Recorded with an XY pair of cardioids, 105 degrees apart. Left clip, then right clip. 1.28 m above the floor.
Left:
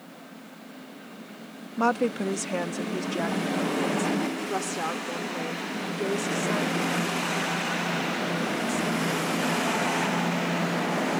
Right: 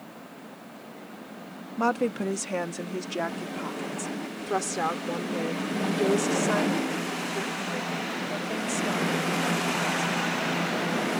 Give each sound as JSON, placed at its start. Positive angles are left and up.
{"t": 1.8, "sound": "a woman speaking", "azimuth_deg": 15}